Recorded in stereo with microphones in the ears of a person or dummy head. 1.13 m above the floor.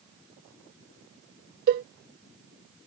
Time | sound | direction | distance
1.7 | a cowbell | 50° right (ahead or behind) | ?